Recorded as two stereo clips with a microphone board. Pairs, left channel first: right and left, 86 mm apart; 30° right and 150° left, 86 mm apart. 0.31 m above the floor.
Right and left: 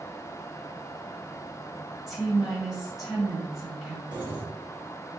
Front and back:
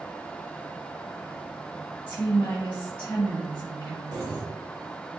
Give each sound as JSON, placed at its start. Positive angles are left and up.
{"t": 2.1, "sound": "a woman speaking", "azimuth_deg": 15, "distance_m": 1.0}
{"t": 4.1, "sound": "keys jangling", "azimuth_deg": 115, "distance_m": 1.6}